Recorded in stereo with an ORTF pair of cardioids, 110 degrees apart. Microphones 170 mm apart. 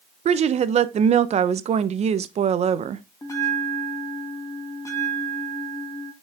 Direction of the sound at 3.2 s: 20° left.